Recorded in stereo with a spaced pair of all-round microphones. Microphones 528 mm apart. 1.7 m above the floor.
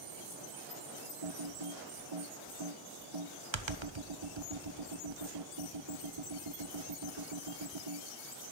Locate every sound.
1.2 s typing on a keyboard: 60° right (ahead or behind), 0.8 m